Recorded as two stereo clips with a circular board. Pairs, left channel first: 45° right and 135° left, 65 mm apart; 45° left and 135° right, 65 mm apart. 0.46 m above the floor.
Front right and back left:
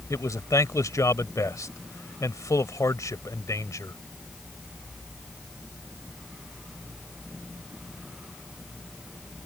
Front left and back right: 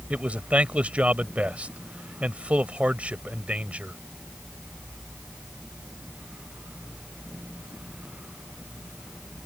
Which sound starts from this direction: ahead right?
A man speaking, at 0.1 s.